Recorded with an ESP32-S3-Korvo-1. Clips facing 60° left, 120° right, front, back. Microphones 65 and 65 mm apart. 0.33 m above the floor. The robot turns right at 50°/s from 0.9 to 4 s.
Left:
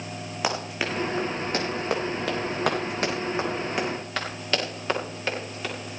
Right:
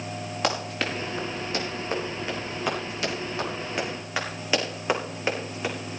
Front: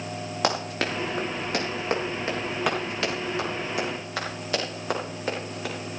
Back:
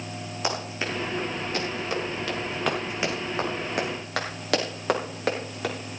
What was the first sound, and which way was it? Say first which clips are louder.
Running footsteps: even, front 3 dB; 25° right.